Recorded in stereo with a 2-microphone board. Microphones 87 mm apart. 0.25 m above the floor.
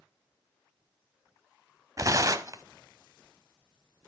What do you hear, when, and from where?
2.0 s tearing paper: 40° right (ahead or behind), 0.8 m